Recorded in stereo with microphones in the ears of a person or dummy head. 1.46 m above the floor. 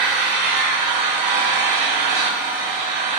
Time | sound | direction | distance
0.0 | an engine running | 60° right (ahead or behind) | 3.5 m